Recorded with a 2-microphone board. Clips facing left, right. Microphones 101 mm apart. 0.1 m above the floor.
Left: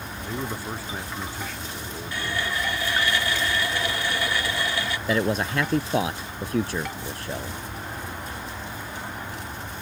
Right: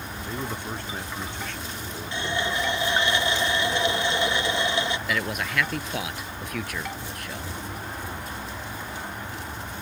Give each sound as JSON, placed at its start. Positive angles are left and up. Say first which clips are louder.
{"t": 0.2, "sound": "a man speaking", "louder": "left 2 dB", "side_deg": 5}
{"t": 2.1, "sound": "a running tap", "louder": "right 2 dB", "side_deg": -20}
{"t": 5.1, "sound": "a man speaking", "louder": "left 5 dB", "side_deg": 30}